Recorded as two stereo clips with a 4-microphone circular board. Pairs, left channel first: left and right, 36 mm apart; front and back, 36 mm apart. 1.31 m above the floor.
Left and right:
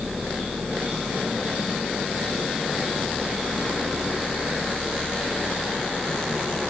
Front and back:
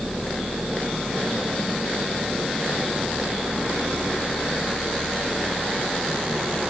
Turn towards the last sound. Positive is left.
No sound to turn to.